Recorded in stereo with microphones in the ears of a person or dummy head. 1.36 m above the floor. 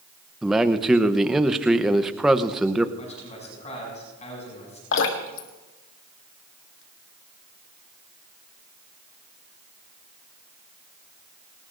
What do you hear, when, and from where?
0.4 s a man speaking: 10° right (ahead or behind), 0.8 m
3.0 s a man speaking: 45° left (ahead or behind), 7 m
4.9 s dripping: 80° left, 1.8 m